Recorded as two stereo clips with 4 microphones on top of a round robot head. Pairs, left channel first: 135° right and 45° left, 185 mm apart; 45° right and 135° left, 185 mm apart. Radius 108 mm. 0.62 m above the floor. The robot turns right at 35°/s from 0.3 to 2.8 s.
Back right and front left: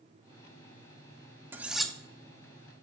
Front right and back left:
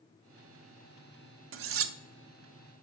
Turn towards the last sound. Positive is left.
turn(degrees=170)